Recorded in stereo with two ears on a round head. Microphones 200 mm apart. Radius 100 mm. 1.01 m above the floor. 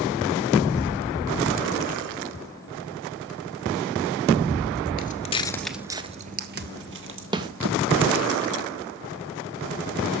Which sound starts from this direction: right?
A snare drum, at 7.3 s.